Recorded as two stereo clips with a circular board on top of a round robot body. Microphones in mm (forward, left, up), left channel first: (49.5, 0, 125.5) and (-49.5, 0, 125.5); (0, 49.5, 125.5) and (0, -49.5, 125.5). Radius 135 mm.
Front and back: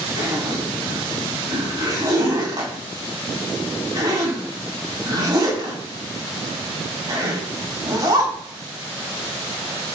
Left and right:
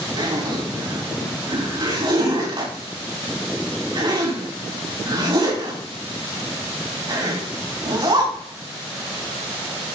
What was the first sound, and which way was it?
A zipper, 130° right.